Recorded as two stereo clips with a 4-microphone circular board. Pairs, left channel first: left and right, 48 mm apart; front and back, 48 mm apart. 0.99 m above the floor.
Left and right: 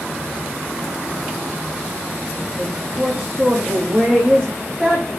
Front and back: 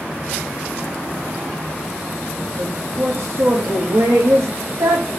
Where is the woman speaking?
Straight behind, 1.7 m.